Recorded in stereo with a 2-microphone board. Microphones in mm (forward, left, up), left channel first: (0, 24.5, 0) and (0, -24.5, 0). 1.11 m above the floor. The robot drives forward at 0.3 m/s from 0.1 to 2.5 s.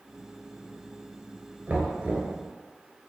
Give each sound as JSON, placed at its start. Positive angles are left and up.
{"t": 1.7, "sound": "knocking", "side_deg": -30, "distance_m": 2.5}